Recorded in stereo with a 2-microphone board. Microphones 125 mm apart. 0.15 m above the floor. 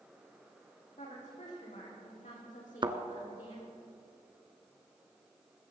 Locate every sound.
1.0 s a woman speaking: 70° left (ahead or behind), 6 m; by 3.7 s 80° left, 5.5 m
2.8 s a thud: 40° right (ahead or behind), 0.9 m